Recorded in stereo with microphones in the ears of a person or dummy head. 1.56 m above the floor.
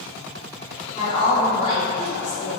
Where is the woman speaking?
40° left (ahead or behind), 1.0 m.